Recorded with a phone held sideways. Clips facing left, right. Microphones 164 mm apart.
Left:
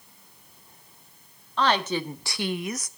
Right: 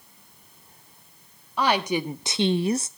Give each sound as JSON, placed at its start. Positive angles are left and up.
{"t": 1.6, "sound": "a woman speaking", "side_deg": -10, "distance_m": 1.7}